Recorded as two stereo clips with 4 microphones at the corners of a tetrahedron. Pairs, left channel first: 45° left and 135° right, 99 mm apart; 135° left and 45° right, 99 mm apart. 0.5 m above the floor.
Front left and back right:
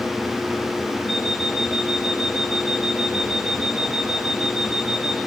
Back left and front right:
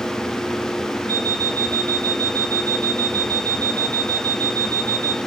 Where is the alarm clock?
150° right, 4.5 m.